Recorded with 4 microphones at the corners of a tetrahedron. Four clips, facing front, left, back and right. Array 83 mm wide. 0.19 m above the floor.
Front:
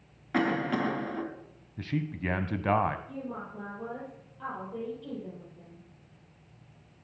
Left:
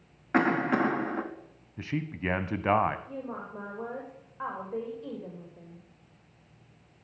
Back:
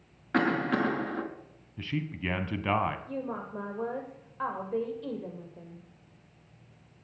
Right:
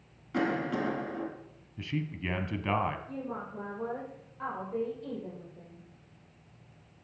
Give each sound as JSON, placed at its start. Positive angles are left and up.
{"t": 0.3, "sound": "a cough", "azimuth_deg": 100, "distance_m": 2.0}
{"t": 1.8, "sound": "a man speaking", "azimuth_deg": 60, "distance_m": 1.1}
{"t": 3.1, "sound": "a woman speaking", "azimuth_deg": 170, "distance_m": 6.0}